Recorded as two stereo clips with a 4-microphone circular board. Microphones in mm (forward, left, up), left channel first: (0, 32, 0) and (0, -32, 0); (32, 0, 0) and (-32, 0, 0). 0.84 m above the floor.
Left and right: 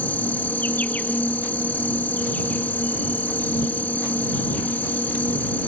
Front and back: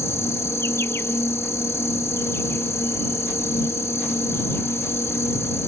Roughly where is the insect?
Ahead left.